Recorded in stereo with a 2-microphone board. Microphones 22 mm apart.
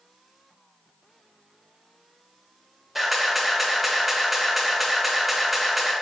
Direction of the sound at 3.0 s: 10° right (ahead or behind).